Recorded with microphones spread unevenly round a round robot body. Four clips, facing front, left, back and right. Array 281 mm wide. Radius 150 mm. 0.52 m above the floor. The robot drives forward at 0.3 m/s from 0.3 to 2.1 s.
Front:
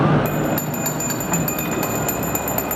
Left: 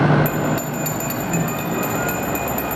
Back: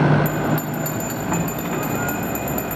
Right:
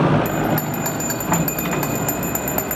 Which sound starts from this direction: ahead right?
A bell, at 0.2 s.